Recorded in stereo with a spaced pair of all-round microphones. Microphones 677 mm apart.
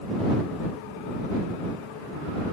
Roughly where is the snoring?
I don't hear snoring.